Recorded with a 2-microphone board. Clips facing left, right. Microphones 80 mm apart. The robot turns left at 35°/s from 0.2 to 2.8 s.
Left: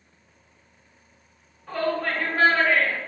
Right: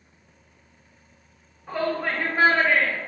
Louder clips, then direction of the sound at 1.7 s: Even; 10° right (ahead or behind).